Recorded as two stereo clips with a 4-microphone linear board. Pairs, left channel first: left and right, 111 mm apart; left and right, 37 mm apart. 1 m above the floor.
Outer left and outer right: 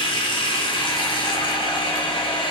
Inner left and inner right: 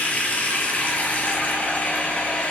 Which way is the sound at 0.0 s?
45° left (ahead or behind).